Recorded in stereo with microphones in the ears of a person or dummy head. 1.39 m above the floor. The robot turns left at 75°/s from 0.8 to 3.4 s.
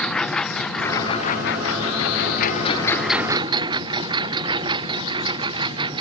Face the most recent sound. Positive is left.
turn(degrees=-30)  # may be behind; listen again after turning